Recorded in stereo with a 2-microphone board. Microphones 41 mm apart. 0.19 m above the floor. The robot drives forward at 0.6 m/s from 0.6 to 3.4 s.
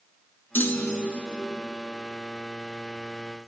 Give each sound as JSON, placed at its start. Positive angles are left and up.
{"t": 0.6, "sound": "a clunk", "side_deg": 60, "distance_m": 0.8}